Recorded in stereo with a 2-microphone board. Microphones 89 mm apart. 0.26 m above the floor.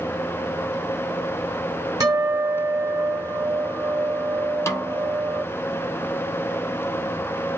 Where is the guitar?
40° right (ahead or behind), 1.0 m.